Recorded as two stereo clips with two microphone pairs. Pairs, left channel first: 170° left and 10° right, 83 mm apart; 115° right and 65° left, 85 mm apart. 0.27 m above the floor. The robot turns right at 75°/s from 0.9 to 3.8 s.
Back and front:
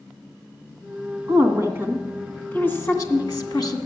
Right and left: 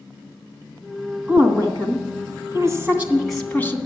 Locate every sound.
1.3 s a woman speaking: 5° left, 2 m; by 3.8 s 165° right, 2 m